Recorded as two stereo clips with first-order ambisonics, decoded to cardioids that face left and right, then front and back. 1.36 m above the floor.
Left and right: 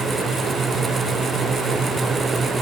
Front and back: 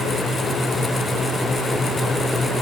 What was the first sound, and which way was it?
Only background noise.